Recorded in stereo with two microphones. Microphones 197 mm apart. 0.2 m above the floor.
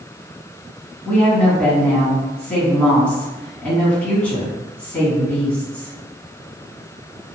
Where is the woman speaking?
5° left (ahead or behind), 1.8 m.